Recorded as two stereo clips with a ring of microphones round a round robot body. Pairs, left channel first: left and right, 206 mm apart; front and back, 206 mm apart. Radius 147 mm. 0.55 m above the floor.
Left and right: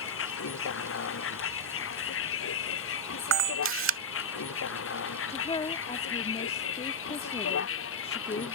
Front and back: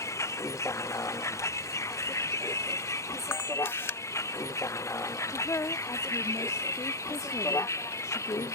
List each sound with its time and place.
0.0 s a vehicle: 75° left
3.3 s a camera shutter: 80° right
5.3 s a woman speaking: 60° left